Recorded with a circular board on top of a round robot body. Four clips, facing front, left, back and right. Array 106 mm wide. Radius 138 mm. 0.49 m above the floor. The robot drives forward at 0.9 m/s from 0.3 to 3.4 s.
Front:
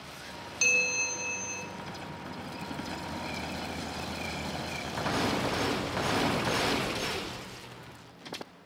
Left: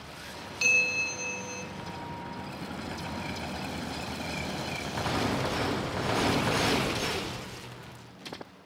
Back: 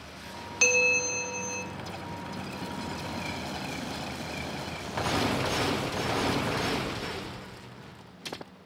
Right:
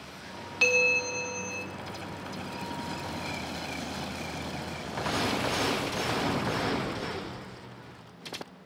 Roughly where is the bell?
Behind right.